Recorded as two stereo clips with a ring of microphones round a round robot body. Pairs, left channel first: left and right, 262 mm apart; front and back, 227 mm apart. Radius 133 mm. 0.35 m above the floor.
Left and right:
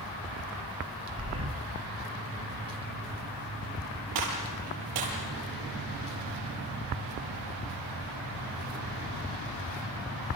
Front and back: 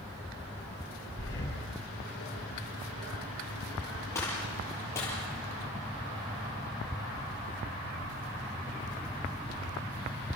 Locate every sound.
1.2 s breathing: 55° right, 7 m
4.2 s a gunshot: 80° right, 7 m